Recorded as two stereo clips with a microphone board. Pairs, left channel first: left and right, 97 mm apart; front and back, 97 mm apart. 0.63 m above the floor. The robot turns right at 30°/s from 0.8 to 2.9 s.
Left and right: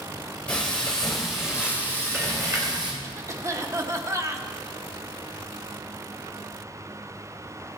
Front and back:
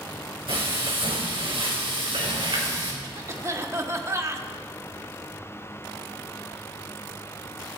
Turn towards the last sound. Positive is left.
turn(degrees=-130)